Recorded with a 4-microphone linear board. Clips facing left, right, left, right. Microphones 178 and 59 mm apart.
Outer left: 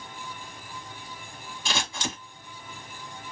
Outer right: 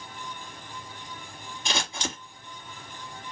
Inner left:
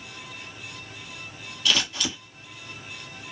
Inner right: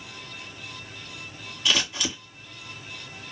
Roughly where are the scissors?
Centre.